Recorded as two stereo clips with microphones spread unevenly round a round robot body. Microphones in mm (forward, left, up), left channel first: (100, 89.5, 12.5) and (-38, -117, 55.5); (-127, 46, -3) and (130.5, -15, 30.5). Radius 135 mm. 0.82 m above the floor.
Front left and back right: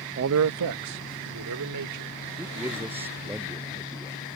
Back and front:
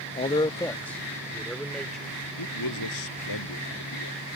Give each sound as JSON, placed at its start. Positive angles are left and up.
{"t": 0.2, "sound": "a man speaking", "azimuth_deg": -160}
{"t": 2.4, "sound": "a man speaking", "azimuth_deg": 155}